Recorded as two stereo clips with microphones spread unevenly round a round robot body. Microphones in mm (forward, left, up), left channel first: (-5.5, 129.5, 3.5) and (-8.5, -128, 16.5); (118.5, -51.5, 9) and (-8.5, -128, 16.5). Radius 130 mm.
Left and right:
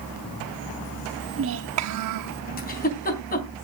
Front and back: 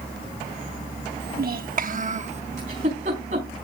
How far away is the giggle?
About 3.5 m.